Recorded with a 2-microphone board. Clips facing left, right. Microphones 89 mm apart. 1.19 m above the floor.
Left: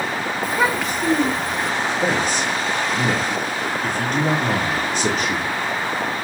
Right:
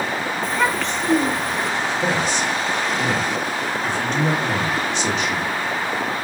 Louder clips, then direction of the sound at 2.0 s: Left 1 dB; 45° left (ahead or behind).